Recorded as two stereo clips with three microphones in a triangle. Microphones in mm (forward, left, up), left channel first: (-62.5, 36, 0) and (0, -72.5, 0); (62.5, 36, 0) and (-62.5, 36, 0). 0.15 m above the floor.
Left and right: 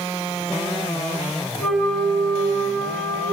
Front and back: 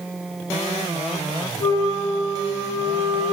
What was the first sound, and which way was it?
A flute, 40° left.